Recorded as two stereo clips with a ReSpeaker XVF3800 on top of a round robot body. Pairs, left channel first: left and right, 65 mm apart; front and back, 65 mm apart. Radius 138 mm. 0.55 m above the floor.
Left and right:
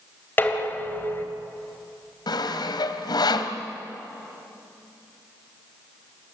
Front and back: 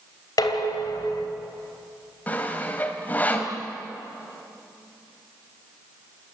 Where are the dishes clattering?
30° left, 2.5 m.